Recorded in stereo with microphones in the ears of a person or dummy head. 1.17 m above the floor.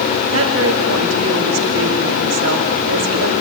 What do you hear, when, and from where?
0.3 s a woman speaking: 80° right, 3.5 m